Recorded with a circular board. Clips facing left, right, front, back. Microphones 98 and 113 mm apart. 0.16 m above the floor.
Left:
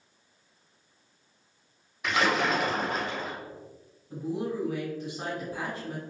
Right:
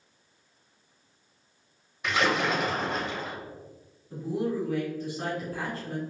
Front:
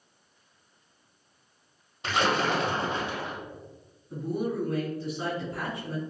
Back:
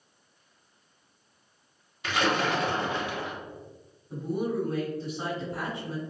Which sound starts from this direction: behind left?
A woman speaking, at 4.1 s.